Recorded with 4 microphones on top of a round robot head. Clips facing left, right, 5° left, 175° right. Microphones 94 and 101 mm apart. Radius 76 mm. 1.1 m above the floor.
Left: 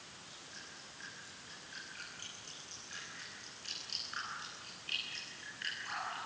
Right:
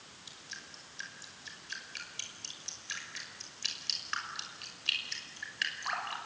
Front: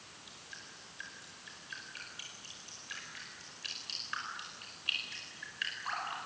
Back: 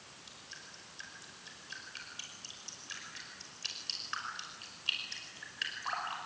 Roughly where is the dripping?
Right.